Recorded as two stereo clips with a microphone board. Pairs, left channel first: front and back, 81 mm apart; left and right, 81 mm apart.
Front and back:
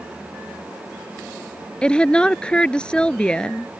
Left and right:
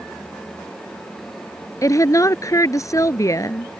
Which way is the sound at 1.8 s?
75° left.